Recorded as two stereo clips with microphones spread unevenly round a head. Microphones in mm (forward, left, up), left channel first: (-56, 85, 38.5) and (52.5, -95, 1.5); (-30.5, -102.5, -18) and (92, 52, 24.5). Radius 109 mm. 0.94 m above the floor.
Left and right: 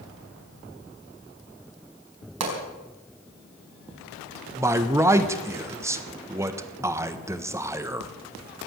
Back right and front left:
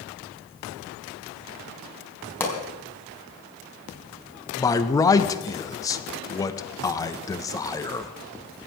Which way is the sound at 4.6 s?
105° right.